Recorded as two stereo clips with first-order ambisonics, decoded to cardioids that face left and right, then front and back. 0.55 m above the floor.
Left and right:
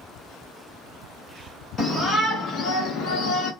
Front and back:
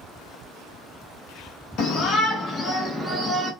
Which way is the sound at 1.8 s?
20° left.